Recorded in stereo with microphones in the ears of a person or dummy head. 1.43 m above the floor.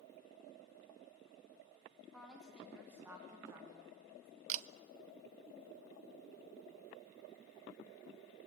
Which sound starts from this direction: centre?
A woman speaking, at 2.1 s.